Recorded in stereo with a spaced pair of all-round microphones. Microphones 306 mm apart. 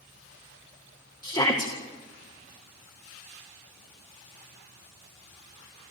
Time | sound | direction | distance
1.2 | a shout | 15° left (ahead or behind) | 1.9 m